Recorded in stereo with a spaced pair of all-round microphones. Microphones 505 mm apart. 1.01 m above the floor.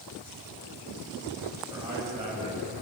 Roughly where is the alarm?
No alarm in this recording.